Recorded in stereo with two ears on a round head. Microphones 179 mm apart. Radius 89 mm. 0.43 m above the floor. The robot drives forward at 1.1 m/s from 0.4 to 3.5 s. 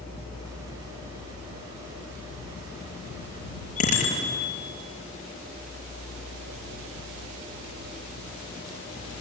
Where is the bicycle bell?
35° left (ahead or behind), 5.5 m.